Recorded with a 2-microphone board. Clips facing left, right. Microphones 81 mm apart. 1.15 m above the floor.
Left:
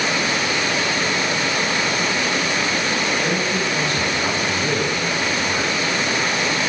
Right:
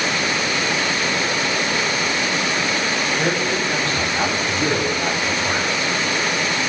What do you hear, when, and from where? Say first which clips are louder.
3.2 s a man speaking: right 1 dB; 90° right, 8 m; by 5.7 s 80° right, 6.5 m